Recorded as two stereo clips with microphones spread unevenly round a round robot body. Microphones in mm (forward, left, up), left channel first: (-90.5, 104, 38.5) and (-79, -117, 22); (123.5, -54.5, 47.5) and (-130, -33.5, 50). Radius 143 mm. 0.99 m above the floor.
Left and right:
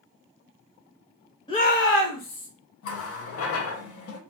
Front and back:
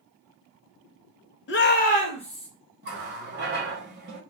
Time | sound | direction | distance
1.5 | a shout | 20° left | 0.5 m
2.8 | a running tap | 120° left | 0.6 m